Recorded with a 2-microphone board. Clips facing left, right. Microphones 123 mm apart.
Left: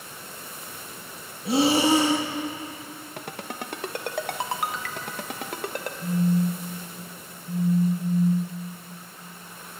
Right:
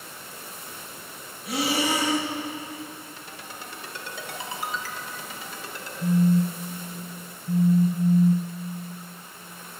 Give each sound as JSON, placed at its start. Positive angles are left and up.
{"t": 1.4, "sound": "breathing", "side_deg": 30, "distance_m": 2.0}
{"t": 3.2, "sound": "a ringtone", "side_deg": 65, "distance_m": 1.2}
{"t": 6.0, "sound": "a phone buzzing", "side_deg": -40, "distance_m": 1.6}